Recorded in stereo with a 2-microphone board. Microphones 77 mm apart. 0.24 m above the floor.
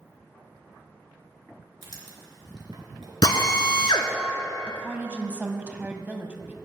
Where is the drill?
70° left (ahead or behind), 1.1 m.